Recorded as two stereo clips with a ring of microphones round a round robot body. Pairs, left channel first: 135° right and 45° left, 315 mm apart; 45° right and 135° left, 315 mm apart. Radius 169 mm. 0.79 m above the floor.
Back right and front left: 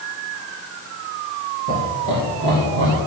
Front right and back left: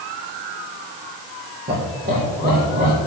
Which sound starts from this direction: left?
Laughter, at 1.7 s.